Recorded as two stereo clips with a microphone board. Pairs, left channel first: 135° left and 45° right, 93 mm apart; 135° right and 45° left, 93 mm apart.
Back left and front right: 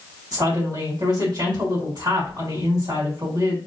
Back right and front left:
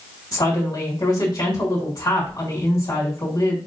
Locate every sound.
0.3 s a woman speaking: 90° right, 3 m